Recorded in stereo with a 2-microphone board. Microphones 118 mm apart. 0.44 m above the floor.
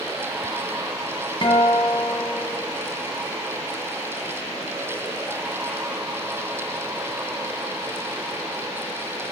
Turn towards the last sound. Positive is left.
turn(degrees=50)  # may be behind; listen again after turning